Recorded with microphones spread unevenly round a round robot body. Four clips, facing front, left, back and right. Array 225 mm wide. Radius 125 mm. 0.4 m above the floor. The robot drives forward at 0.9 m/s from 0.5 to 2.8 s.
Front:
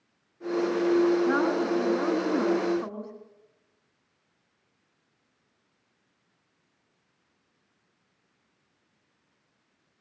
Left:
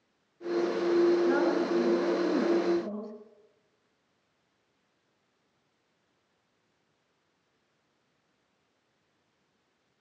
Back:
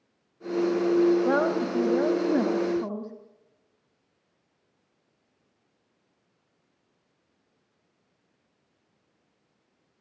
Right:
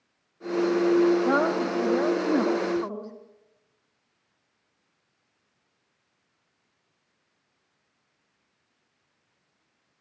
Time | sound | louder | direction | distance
1.2 | a woman speaking | right 2 dB, back 1 dB | 155° right | 1.8 m